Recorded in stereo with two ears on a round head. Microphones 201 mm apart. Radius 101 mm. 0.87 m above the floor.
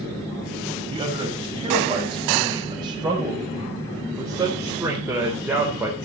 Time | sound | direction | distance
0.9 | a man speaking | 25° right (ahead or behind) | 5.5 m